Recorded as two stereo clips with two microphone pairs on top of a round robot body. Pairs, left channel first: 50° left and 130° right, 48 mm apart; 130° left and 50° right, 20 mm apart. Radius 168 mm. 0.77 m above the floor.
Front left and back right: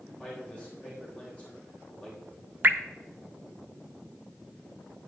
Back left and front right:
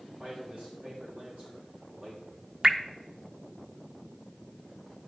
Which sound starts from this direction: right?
Dripping, at 2.6 s.